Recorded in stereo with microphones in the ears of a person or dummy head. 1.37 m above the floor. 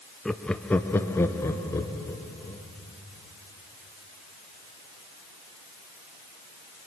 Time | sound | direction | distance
0.2 | laughter | 5° left (ahead or behind) | 0.6 m